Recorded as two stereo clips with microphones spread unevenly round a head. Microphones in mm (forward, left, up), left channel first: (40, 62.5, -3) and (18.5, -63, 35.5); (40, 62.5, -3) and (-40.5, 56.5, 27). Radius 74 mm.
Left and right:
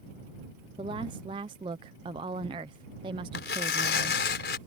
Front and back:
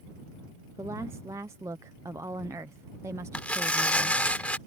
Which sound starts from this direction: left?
Tearing paper, at 3.3 s.